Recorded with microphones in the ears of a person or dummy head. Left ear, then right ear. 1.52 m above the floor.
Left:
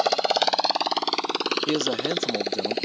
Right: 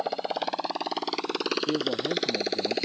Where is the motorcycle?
70° left (ahead or behind); by 2.9 s centre (ahead or behind).